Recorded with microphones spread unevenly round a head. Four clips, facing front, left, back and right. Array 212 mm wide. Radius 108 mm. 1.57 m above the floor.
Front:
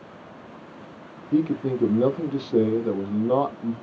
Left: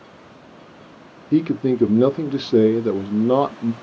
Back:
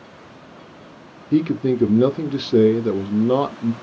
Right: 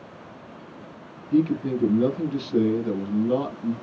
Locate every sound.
1.3 s a man speaking: 120° left, 0.6 m